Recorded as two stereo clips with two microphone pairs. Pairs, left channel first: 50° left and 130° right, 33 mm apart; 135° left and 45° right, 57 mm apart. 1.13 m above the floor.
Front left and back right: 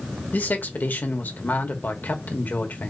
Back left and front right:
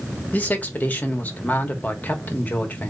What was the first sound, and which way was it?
A man speaking, 75° left.